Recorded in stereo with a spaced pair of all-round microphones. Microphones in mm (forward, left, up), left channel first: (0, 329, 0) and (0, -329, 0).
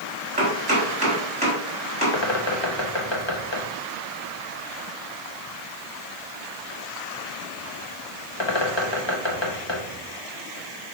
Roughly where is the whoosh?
No whoosh in this recording.